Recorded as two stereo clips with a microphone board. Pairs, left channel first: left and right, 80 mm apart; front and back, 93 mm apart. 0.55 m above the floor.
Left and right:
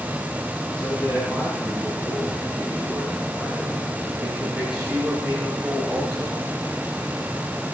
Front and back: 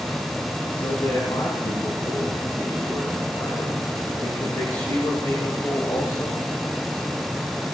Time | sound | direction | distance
0.8 | a man speaking | 10° left | 6 m